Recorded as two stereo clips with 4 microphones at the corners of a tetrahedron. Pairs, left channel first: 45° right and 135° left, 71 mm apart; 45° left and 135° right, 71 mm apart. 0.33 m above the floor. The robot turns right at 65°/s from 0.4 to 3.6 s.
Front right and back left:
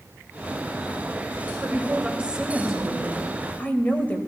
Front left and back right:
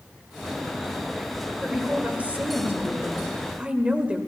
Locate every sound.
1.6 s a woman speaking: 145° left, 1.6 m; by 4.2 s 85° right, 1.6 m